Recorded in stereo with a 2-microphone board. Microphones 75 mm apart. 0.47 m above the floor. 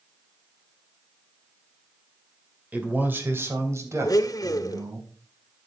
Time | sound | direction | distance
2.7 | a man speaking | 20° right (ahead or behind) | 2 m
4.0 | a blender | 50° left (ahead or behind) | 0.9 m